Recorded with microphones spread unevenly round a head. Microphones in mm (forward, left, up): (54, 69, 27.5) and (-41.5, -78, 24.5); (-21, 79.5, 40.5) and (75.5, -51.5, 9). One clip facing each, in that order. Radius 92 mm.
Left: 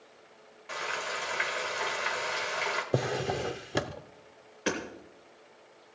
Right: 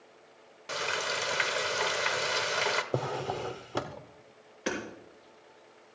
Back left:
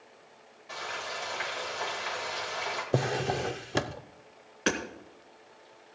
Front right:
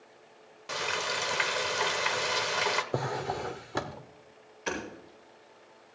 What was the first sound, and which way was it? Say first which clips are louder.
Frying: right 3 dB, front right 5 dB; 80° right.